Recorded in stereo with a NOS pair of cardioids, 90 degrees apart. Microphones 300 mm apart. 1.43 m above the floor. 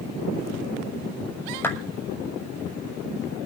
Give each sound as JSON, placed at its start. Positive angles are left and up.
{"t": 1.6, "sound": "a clap", "azimuth_deg": 5, "distance_m": 6.0}